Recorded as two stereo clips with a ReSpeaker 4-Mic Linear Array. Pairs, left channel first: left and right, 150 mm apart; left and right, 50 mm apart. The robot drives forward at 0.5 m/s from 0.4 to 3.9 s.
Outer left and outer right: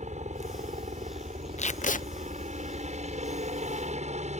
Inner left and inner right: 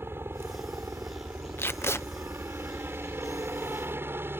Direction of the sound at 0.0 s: 50° right (ahead or behind).